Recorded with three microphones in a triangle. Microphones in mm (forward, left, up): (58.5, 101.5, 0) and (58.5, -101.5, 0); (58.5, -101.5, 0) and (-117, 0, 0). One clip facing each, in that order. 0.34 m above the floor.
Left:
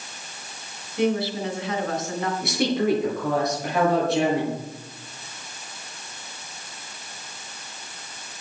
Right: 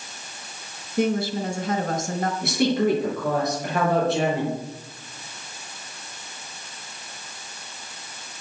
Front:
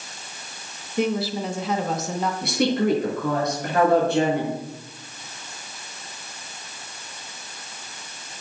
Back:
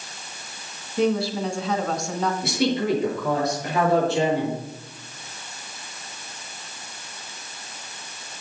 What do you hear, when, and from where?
1.0 s a woman speaking: 95° right, 1.3 m
2.4 s a woman speaking: straight ahead, 6 m